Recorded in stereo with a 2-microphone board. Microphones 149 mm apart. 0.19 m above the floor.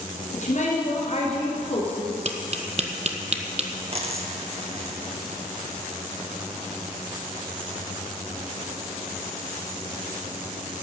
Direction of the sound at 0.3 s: 55° left (ahead or behind).